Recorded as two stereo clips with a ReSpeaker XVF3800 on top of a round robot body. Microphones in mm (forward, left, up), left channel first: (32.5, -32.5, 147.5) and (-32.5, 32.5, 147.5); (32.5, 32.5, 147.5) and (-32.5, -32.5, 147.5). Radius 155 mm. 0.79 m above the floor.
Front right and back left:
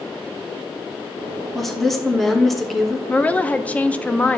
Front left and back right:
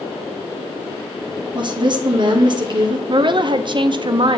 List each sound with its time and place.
1.6 s a woman speaking: 135° right, 1.5 m
3.1 s a woman speaking: 120° right, 0.7 m